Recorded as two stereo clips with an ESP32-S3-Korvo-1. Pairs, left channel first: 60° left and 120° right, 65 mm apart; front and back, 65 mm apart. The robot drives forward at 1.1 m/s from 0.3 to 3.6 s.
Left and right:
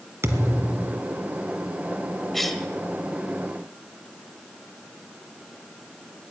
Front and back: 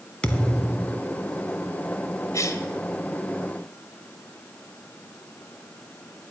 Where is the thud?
75° right, 1.5 m; by 1.0 s 105° right, 1.5 m.